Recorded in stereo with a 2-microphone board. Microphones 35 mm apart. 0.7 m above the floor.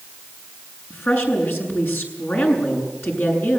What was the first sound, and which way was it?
A woman speaking, 75° left (ahead or behind).